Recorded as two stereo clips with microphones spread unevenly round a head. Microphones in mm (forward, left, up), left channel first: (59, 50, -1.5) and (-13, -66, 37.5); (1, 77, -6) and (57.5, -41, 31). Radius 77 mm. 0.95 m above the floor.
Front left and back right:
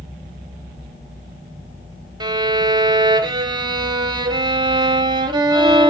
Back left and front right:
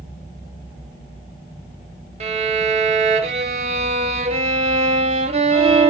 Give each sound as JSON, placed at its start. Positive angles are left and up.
{"t": 2.2, "sound": "a violin", "azimuth_deg": -80, "distance_m": 0.6}